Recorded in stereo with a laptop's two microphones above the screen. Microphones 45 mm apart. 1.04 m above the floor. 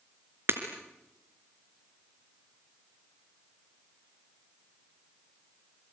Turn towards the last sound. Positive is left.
turn(degrees=-55)  # may be behind; listen again after turning